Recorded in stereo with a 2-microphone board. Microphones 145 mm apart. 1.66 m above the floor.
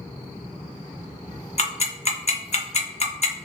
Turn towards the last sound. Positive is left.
turn(degrees=50)  # may be behind; listen again after turning